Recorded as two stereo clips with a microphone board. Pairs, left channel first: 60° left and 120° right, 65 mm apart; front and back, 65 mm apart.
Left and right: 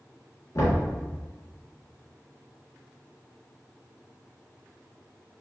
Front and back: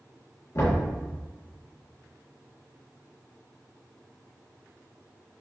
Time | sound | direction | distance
0.6 | knocking | 30° left | 1.9 m